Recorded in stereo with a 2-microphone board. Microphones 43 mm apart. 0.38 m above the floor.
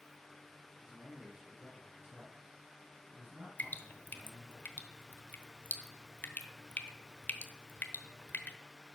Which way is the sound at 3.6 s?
45° left (ahead or behind).